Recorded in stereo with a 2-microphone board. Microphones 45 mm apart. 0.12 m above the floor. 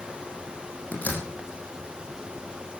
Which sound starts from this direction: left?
A door slam, at 0.9 s.